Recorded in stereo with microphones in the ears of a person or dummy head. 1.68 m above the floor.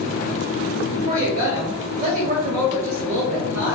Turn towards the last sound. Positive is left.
turn(degrees=-50)  # may be behind; listen again after turning